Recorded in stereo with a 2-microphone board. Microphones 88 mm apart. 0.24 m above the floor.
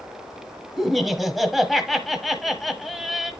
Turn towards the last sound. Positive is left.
turn(degrees=0)  # may be behind; listen again after turning